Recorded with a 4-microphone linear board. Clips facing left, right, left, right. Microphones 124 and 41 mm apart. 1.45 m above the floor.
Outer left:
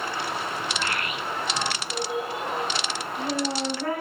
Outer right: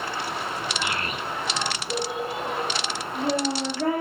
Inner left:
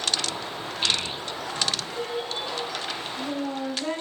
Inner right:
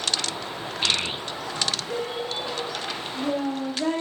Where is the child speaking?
10° right (ahead or behind), 0.5 m; by 4.0 s 70° right (ahead or behind), 3 m.